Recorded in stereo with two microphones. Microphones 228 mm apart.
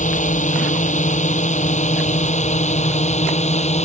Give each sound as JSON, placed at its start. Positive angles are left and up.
{"t": 0.0, "sound": "a drone", "side_deg": 35}